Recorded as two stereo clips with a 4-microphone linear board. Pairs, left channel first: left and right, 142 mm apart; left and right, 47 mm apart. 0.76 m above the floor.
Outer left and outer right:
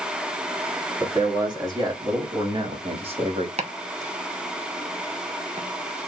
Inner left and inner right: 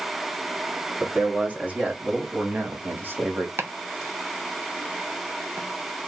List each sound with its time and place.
1.0 s a man speaking: 25° right (ahead or behind), 2 m; by 3.5 s 45° right (ahead or behind), 1.4 m
3.6 s chopping: 50° right (ahead or behind), 0.9 m